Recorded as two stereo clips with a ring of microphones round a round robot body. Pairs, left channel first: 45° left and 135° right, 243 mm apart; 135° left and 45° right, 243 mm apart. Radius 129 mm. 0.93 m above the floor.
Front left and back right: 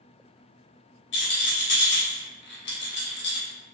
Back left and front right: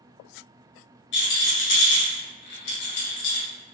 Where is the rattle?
90° left, 0.7 m.